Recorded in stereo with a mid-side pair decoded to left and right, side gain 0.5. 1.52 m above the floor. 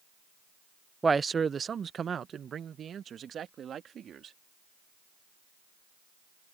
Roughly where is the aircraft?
No aircraft in this recording.